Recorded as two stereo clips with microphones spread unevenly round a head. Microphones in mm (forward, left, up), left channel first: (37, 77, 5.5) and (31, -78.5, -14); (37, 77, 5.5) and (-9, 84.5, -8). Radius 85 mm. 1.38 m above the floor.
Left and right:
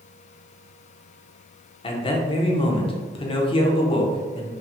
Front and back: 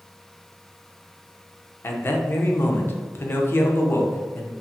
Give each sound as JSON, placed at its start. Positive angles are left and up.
{"t": 1.8, "sound": "a man speaking", "azimuth_deg": 30, "distance_m": 0.5}